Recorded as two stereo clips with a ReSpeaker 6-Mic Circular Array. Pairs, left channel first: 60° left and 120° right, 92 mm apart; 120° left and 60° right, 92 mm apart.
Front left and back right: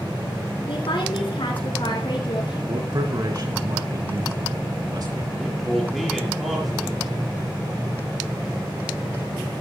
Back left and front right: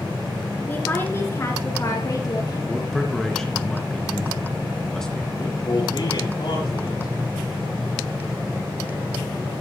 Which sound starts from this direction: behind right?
A man speaking, at 2.7 s.